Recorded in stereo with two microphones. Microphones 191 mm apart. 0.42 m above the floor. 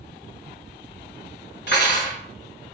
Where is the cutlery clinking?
65° left (ahead or behind), 1.5 m.